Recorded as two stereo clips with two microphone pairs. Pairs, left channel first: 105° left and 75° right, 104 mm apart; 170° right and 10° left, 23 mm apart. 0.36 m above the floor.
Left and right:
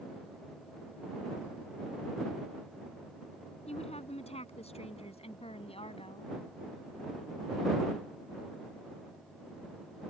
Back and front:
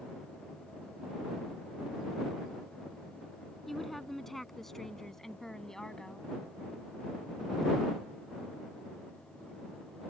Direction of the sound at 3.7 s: 100° left.